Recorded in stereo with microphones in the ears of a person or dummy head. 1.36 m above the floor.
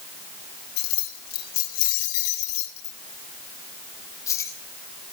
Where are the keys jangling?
70° left (ahead or behind), 4.5 m; by 4.6 s 15° left (ahead or behind), 5.5 m.